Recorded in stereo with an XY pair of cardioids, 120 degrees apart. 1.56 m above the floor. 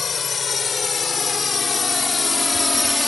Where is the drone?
35° left; by 3.1 s 10° left.